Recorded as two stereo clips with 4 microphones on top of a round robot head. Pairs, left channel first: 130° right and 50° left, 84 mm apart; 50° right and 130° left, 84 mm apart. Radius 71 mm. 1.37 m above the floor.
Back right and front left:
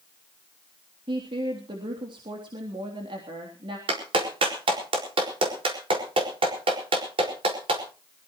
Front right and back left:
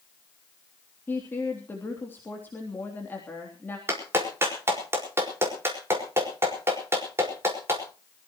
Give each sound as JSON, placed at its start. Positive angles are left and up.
{"t": 1.1, "sound": "a woman speaking", "azimuth_deg": 20, "distance_m": 3.0}
{"t": 3.9, "sound": "a clap", "azimuth_deg": 70, "distance_m": 5.0}